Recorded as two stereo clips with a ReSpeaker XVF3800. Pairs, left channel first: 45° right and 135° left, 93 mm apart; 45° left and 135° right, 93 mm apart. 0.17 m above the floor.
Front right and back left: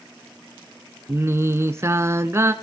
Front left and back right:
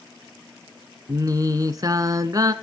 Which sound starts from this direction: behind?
Singing, at 1.1 s.